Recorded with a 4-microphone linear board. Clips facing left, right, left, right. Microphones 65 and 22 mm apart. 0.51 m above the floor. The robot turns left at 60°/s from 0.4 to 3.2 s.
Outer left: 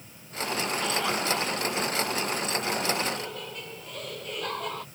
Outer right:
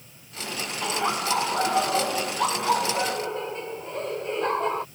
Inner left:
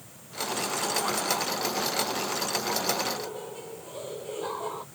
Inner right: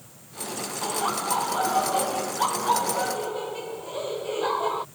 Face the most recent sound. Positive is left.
turn(degrees=-150)